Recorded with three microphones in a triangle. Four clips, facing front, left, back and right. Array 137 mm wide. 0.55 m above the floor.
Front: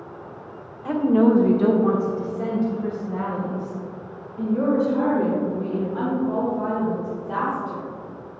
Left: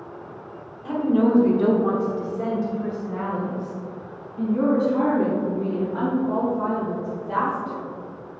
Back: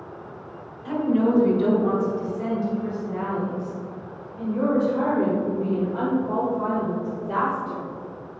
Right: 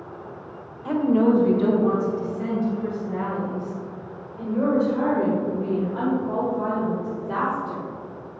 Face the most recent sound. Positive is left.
turn(degrees=90)